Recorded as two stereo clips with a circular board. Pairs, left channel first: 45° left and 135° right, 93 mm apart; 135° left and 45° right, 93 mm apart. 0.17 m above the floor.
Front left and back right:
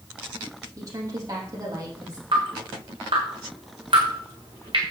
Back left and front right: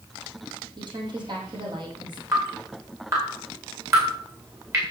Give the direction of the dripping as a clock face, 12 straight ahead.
3 o'clock.